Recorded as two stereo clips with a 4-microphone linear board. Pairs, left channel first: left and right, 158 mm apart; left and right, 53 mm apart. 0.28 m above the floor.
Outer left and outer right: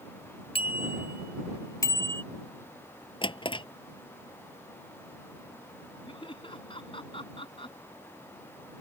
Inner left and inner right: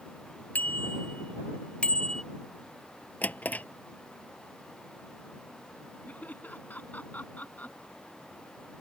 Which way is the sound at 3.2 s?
35° left (ahead or behind).